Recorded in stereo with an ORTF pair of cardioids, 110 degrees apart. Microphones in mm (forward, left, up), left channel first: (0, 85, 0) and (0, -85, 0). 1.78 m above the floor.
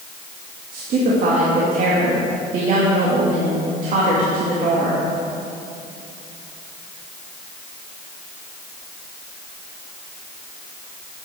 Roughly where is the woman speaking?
Ahead right.